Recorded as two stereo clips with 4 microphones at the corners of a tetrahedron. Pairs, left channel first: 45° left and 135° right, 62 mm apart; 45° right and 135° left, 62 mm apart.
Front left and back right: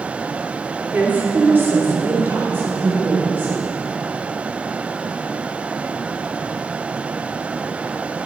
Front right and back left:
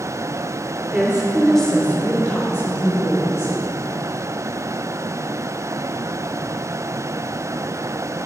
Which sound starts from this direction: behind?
A woman speaking, at 0.9 s.